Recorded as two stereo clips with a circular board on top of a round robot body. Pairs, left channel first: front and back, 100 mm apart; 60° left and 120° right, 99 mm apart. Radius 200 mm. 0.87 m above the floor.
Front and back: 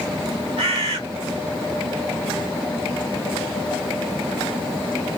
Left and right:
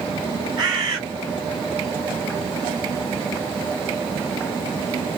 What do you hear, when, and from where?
0.6 s a bird: 160° right, 0.9 m